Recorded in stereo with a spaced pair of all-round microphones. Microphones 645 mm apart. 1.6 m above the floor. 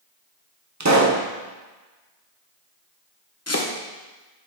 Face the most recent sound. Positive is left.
turn(degrees=25)  # may be behind; listen again after turning